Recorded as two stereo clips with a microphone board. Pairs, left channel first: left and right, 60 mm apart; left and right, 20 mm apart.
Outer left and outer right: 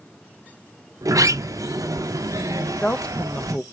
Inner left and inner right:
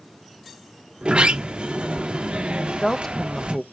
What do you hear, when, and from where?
1.0 s a sliding door: 65° right (ahead or behind), 0.5 m
2.6 s a woman speaking: 15° left (ahead or behind), 0.5 m